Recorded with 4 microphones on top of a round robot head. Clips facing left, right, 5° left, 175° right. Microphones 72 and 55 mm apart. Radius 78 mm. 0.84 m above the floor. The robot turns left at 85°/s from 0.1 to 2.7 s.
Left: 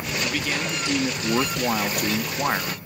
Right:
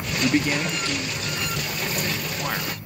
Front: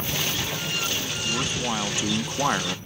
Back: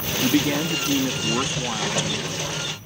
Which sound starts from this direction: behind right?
A man speaking, at 0.2 s.